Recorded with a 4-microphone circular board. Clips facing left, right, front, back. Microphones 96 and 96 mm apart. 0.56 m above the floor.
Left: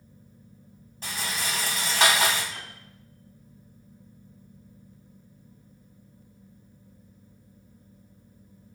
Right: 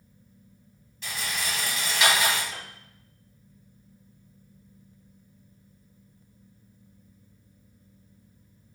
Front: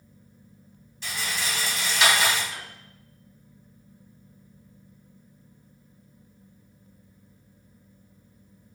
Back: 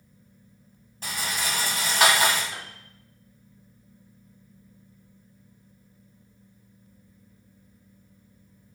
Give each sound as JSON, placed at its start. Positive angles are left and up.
{"t": 1.0, "sound": "a rattle", "azimuth_deg": 140, "distance_m": 3.5}
{"t": 2.5, "sound": "a piano", "azimuth_deg": -125, "distance_m": 3.5}